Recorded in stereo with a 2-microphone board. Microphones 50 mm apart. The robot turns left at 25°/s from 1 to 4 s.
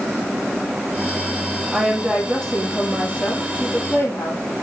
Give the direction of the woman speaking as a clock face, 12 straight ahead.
6 o'clock.